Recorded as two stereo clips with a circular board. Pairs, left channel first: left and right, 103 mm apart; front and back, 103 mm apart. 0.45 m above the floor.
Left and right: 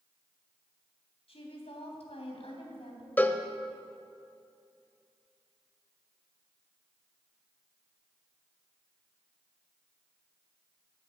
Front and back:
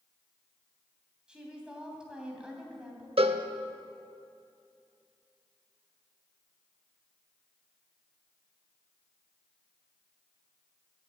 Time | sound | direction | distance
1.3 | a woman speaking | 100° left | 3 m
3.2 | a cowbell | 160° left | 0.7 m